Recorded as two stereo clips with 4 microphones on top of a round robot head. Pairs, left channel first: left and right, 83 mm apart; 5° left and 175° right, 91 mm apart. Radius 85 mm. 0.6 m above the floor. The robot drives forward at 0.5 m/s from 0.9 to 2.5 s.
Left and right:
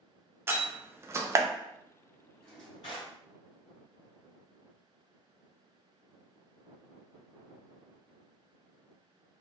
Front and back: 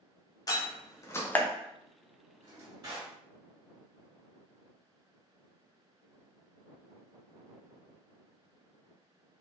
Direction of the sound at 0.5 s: 35° right.